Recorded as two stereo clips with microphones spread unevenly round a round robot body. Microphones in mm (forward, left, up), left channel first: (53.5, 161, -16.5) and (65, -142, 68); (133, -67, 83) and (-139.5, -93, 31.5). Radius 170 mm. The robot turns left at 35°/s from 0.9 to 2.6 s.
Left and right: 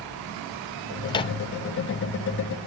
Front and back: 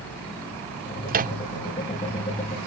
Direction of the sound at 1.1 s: 150° left.